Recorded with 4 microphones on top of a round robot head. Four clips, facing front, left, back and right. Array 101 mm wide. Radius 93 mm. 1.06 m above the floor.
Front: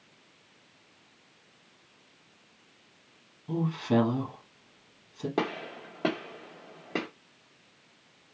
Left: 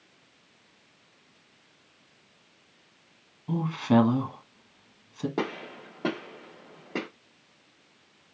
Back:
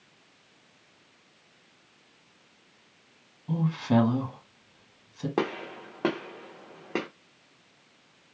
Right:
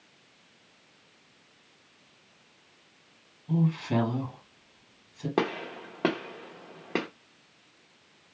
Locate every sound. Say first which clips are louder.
3.5 s a woman speaking: left 3 dB, back 2 dB; 105° left, 1.6 m
5.4 s a gunshot: right 8 dB, back 2 dB; 115° right, 0.7 m